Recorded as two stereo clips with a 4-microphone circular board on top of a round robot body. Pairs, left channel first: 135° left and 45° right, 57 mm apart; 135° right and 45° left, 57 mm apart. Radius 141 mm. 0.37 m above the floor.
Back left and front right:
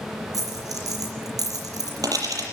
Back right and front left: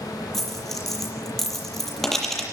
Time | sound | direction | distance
0.3 | a dropped coin | 50° right | 6.5 m